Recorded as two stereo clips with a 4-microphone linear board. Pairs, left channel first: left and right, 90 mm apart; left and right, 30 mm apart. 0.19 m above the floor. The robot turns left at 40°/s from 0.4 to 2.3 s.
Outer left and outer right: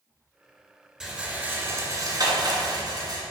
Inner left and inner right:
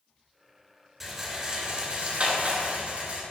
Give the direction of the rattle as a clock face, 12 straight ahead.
12 o'clock.